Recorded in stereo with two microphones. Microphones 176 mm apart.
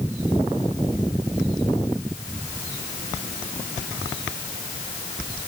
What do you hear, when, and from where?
Only background noise.